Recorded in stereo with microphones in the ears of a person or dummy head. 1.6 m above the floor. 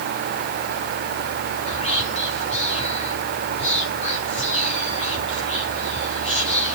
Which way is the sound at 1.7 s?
30° left (ahead or behind).